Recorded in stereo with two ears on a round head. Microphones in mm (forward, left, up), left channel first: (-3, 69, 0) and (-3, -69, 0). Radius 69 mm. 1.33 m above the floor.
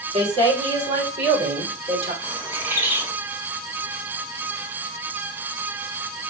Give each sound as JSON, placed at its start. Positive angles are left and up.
{"t": 0.1, "sound": "a woman speaking", "side_deg": -35, "distance_m": 4.5}
{"t": 2.2, "sound": "a bird", "side_deg": -15, "distance_m": 5.5}